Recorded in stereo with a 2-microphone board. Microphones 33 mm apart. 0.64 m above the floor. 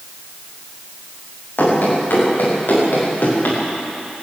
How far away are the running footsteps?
About 10 m.